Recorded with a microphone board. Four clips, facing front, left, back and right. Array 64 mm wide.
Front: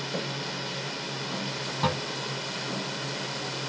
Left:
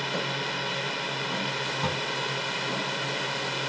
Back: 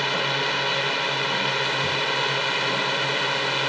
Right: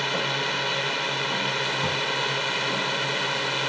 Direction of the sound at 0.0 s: 160° right.